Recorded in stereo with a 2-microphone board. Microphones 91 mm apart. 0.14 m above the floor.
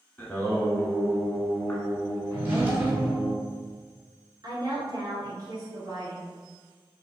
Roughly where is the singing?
Left.